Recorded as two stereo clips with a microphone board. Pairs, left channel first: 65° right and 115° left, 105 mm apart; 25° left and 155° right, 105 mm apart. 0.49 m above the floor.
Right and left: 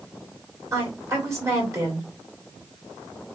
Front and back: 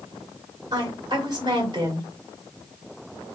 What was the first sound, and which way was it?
A woman speaking, 165° left.